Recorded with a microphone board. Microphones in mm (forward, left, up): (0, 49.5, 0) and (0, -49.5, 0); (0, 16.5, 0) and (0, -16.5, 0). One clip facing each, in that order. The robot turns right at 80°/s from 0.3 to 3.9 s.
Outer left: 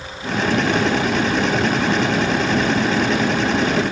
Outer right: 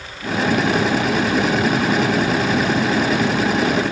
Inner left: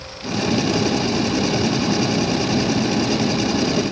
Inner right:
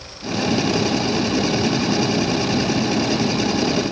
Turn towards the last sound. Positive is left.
No sound to turn to.